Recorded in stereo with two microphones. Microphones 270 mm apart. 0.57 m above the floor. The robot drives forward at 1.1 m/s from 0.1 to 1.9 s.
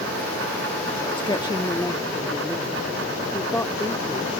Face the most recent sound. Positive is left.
turn(degrees=10)  # may be behind; listen again after turning